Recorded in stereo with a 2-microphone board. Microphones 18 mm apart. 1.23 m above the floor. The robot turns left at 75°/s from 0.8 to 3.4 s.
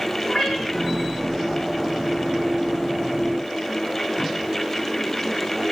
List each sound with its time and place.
0.3 s a cat meowing: 20° left (ahead or behind), 5.5 m; by 0.9 s 30° left (ahead or behind), 5.5 m